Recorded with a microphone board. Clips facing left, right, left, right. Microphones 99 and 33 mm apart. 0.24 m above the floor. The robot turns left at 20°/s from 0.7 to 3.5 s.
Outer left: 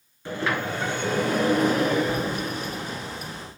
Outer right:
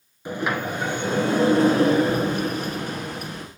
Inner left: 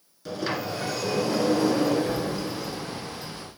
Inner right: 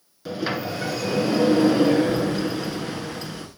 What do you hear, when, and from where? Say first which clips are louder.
0.2 s a sliding door: outer right 1 dB, inner right 2 dB; 15° right, 2 m; by 3.5 s 70° right, 2 m